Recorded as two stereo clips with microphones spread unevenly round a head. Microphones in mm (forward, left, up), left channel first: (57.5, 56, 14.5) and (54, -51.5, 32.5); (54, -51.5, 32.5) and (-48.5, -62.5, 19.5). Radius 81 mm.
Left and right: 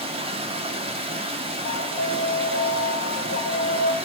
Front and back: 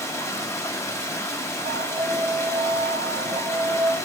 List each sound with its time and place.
0.0 s running water: 60° right, 0.7 m
1.6 s an alarm: 130° left, 0.5 m